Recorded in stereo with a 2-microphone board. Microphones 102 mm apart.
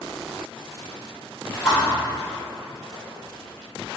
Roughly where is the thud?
Centre.